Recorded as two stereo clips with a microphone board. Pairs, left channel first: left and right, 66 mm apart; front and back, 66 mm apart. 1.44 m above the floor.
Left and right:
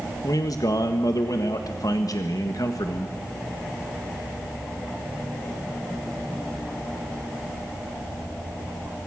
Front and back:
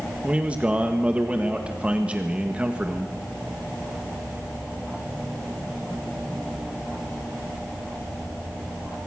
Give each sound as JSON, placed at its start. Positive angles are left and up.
{"t": 0.2, "sound": "a man speaking", "azimuth_deg": 110, "distance_m": 1.5}